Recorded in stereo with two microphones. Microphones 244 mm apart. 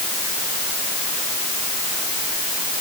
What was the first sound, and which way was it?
Only background noise.